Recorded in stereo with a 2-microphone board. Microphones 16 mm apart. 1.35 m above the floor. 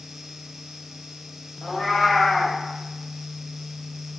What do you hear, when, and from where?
1.6 s a cat meowing: 45° left (ahead or behind), 2.5 m